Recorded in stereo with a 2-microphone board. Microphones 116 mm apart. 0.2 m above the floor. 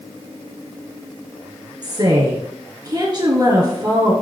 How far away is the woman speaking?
About 3 m.